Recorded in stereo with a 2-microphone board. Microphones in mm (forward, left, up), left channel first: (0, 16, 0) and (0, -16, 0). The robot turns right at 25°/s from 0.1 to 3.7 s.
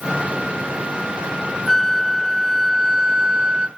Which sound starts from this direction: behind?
A flute, at 1.7 s.